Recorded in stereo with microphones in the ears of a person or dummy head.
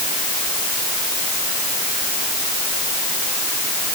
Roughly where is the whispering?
No whispering in this recording.